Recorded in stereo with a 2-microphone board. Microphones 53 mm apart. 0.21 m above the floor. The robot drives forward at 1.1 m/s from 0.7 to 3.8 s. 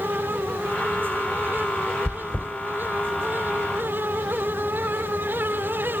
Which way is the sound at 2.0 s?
25° left (ahead or behind).